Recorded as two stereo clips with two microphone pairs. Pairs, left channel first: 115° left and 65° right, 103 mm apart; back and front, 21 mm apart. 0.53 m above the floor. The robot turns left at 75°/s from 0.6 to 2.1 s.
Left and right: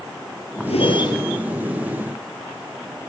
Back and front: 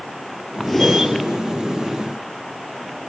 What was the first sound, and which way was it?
A whoosh, 105° left.